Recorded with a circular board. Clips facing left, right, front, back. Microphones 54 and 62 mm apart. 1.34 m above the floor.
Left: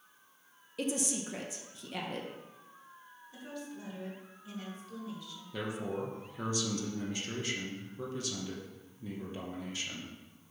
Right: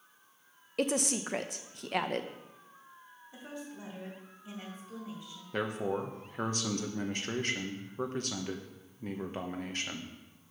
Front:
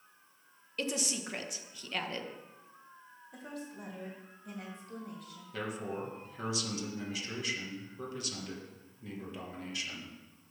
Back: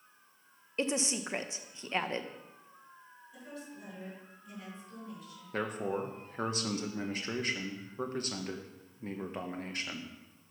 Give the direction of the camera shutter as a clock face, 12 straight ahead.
I don't hear a camera shutter.